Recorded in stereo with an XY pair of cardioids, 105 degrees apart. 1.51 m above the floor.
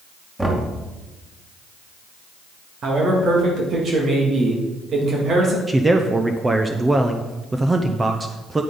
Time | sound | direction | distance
0.4 | knocking | 10° right | 2 m
2.8 | a man speaking | 55° right | 2 m
5.7 | a man speaking | 20° right | 0.8 m